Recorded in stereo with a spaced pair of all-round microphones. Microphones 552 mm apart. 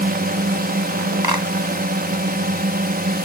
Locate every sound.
0.0 s a drone: 15° right (ahead or behind)
1.2 s a clap: 40° right (ahead or behind)